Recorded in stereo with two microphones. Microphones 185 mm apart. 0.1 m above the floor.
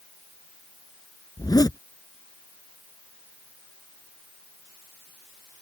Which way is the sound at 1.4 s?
20° left (ahead or behind).